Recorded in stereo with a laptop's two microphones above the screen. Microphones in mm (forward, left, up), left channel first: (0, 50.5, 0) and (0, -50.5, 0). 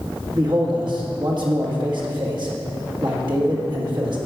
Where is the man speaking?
50° right (ahead or behind), 1.8 m.